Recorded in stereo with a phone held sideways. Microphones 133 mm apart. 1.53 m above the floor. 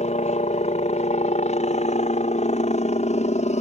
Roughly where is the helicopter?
Left.